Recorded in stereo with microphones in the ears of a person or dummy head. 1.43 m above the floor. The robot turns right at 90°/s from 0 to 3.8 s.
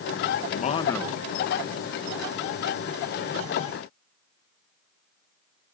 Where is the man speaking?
125° left, 1.0 m; by 1.3 s 160° right, 1.0 m.